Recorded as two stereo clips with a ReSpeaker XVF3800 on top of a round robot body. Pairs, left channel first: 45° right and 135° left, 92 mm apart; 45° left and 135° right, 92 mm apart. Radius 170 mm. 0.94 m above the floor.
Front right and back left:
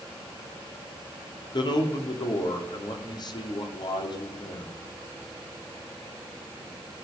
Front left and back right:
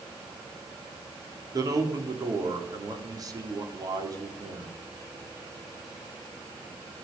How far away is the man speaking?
About 3 m.